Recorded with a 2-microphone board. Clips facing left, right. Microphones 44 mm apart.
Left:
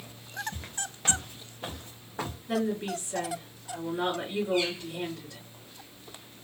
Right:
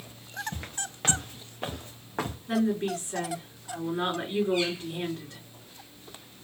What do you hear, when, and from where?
0.5 s footsteps: 70° right (ahead or behind), 2 m; by 2.4 s 75° right (ahead or behind), 2 m
2.5 s a woman speaking: 45° right (ahead or behind), 3.5 m